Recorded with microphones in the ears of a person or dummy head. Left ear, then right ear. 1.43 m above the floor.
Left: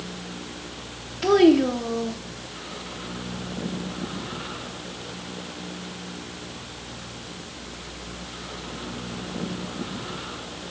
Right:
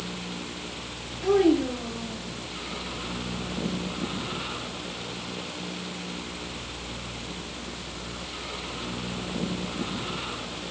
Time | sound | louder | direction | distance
1.2 | a child speaking | left 5 dB | 70° left (ahead or behind) | 0.6 m